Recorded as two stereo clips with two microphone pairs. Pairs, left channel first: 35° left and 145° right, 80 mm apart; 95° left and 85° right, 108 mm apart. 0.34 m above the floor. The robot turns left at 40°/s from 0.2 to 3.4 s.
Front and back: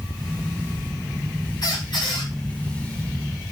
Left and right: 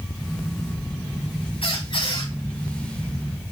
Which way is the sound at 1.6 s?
70° left.